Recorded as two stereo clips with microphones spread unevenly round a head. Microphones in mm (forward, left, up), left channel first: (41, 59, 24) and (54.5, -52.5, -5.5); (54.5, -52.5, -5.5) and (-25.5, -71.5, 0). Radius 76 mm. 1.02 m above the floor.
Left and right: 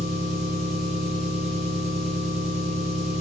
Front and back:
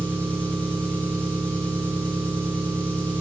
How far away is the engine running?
About 2.5 m.